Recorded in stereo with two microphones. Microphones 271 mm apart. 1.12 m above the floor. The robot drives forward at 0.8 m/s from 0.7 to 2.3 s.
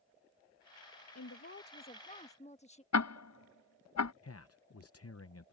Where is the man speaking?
60° left (ahead or behind).